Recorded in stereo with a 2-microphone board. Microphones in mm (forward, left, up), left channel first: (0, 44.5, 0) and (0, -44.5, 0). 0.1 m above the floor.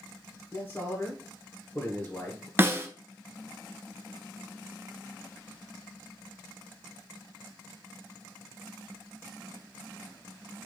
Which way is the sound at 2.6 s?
25° right (ahead or behind).